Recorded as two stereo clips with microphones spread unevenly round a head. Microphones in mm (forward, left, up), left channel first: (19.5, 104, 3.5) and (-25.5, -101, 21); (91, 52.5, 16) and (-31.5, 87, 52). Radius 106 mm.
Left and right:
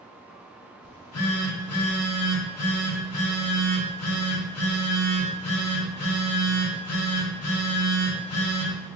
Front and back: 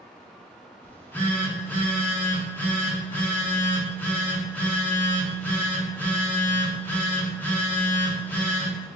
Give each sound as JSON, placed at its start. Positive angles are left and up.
{"t": 0.8, "sound": "a phone buzzing", "azimuth_deg": 60, "distance_m": 1.2}